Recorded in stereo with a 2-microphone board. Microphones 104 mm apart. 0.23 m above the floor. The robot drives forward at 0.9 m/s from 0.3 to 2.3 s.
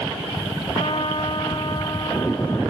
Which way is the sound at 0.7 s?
60° left (ahead or behind).